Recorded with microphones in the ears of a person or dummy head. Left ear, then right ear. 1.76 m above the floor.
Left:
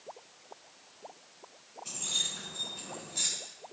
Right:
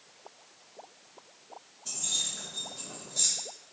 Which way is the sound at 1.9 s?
10° left (ahead or behind).